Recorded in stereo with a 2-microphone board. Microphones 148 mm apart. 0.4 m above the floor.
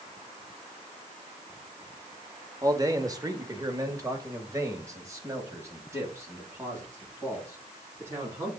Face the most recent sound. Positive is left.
turn(degrees=-15)  # may be behind; listen again after turning